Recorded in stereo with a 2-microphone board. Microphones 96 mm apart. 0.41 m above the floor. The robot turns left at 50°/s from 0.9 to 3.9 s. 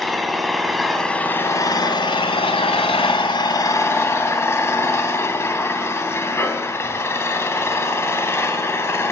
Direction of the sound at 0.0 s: Straight behind.